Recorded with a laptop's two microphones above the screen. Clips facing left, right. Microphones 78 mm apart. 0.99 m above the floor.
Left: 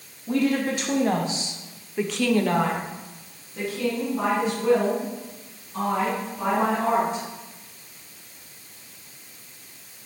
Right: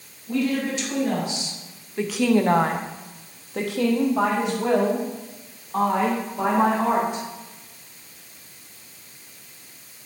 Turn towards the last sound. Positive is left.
turn(degrees=-85)